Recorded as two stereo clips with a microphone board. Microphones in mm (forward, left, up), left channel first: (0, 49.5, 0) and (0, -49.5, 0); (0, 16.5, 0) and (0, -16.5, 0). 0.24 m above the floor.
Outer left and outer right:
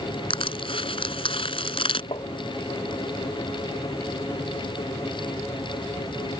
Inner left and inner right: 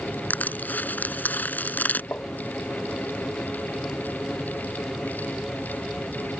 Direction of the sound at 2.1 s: 65° left (ahead or behind).